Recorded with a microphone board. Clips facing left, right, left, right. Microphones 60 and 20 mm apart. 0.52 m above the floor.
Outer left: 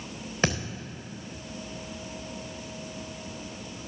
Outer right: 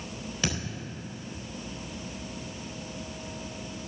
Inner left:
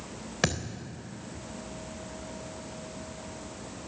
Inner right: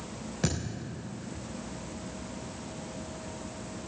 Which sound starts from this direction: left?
A thud, at 0.4 s.